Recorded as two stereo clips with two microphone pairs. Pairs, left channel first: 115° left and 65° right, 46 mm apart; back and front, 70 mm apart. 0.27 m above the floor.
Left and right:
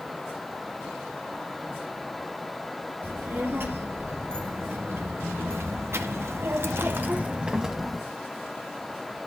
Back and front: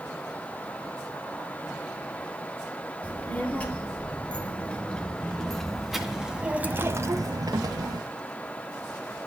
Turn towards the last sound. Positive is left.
turn(degrees=20)